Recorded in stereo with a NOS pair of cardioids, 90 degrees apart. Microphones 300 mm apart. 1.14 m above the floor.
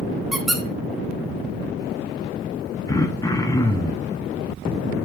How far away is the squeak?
About 0.7 m.